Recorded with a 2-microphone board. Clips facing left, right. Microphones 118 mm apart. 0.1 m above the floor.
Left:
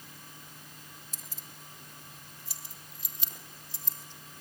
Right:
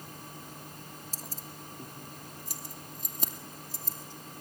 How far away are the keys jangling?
About 1.1 m.